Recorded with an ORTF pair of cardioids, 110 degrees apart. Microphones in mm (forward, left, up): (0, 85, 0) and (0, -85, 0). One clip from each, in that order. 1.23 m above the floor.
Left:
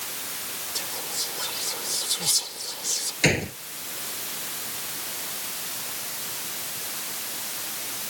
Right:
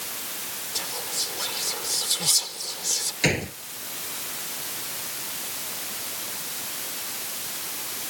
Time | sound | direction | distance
0.8 | whispering | 10° right | ?
3.2 | a gunshot | 10° left | ?